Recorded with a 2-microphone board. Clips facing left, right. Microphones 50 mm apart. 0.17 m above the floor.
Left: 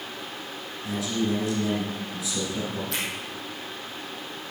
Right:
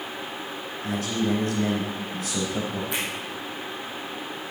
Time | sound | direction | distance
0.8 | a man speaking | 50° right (ahead or behind) | 3 m
2.9 | a finger snap | 15° right (ahead or behind) | 4.5 m